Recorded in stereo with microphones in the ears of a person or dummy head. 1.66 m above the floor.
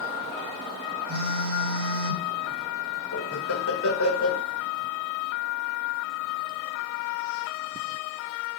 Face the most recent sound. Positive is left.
turn(degrees=80)